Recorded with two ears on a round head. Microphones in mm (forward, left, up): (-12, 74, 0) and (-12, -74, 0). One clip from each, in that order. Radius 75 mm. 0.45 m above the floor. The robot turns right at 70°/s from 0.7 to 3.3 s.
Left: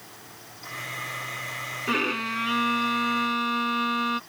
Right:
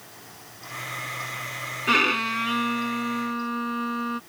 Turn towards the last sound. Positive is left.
turn(degrees=60)